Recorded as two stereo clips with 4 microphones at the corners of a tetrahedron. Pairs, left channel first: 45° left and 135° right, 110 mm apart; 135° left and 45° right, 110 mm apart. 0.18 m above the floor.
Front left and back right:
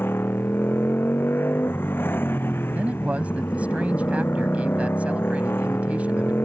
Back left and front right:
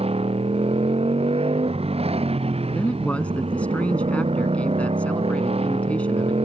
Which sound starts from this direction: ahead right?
A motorcycle, at 0.0 s.